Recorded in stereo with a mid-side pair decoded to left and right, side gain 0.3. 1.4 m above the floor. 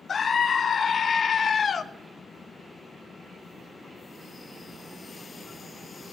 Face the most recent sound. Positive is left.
turn(degrees=60)